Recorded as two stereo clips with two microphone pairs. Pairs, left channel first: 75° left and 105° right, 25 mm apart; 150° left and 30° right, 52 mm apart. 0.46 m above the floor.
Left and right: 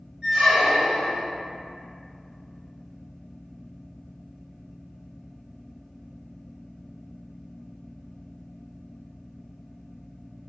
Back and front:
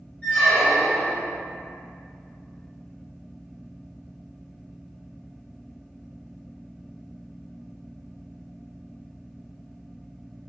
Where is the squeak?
155° right, 1.0 m.